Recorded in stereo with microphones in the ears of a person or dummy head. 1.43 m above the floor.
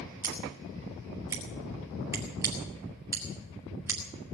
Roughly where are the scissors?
Centre.